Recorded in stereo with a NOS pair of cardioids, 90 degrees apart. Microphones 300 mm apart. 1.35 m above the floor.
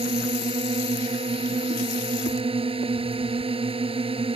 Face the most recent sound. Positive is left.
turn(degrees=-20)